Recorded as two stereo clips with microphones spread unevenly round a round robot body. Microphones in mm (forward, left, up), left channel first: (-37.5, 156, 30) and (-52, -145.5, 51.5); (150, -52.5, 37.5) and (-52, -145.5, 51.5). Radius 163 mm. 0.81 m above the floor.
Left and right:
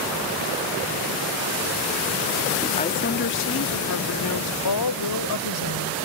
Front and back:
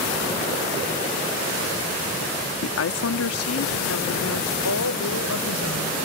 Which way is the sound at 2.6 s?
10° left.